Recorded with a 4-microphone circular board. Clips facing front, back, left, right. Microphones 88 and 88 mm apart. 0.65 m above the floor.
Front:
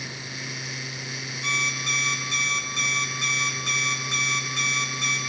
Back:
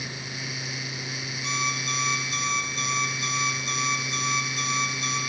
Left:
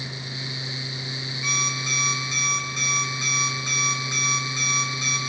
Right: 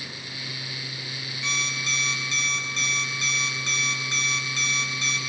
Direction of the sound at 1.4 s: 15° left.